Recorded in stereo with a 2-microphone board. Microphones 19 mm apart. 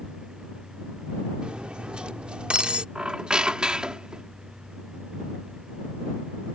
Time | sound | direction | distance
1.4 | cutlery clinking | 75° right (ahead or behind) | ?
3.0 | a squeak | 55° right (ahead or behind) | ?